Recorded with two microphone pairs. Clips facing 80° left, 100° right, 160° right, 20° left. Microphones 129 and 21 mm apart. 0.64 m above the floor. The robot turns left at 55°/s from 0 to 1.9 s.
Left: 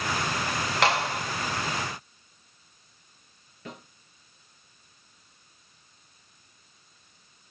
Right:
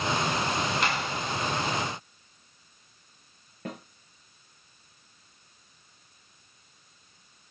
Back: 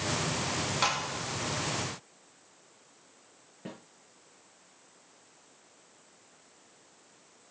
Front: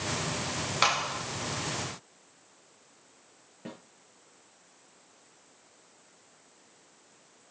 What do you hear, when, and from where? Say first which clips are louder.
0.8 s a clap: left 5 dB, front 6 dB; 80° left, 2.5 m; by 1.2 s 55° left, 2.5 m
3.6 s a snare drum: right 4 dB, even; 55° right, 5.5 m